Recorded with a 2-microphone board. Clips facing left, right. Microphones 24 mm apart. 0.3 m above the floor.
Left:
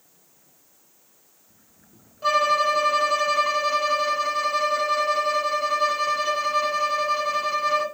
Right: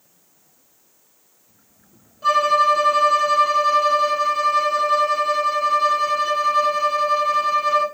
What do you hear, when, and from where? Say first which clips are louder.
2.2 s a violin: right 4 dB; 10° left (ahead or behind), 1.4 m